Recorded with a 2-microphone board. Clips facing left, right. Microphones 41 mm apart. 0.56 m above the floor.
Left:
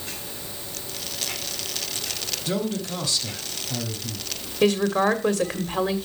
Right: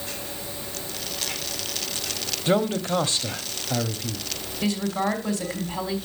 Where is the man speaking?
35° right (ahead or behind), 1.2 m.